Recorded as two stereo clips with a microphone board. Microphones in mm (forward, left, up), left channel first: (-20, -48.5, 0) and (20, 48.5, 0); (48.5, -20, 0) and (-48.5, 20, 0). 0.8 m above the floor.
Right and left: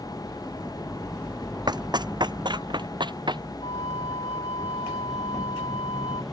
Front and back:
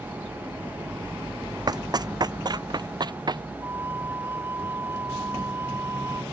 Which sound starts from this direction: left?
Running footsteps, at 1.7 s.